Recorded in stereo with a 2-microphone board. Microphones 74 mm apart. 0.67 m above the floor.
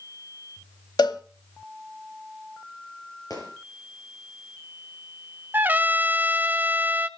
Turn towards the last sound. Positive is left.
turn(degrees=-25)  # may be behind; listen again after turning